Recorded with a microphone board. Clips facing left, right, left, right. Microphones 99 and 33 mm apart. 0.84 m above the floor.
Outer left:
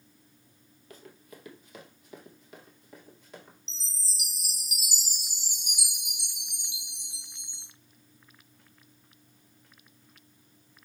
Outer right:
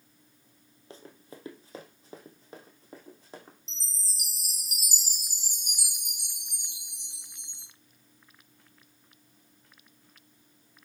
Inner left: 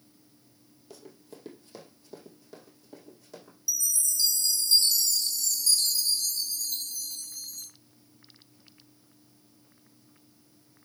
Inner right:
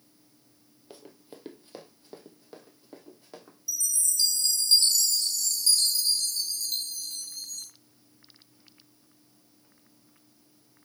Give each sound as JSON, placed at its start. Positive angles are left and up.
{"t": 0.9, "sound": "running footsteps", "side_deg": -30, "distance_m": 1.1}
{"t": 3.7, "sound": "a chime", "side_deg": -45, "distance_m": 1.5}